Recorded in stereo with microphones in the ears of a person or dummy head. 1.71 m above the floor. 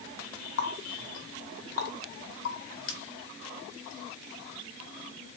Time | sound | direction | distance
0.6 | a running tap | 65° left (ahead or behind) | 1.4 m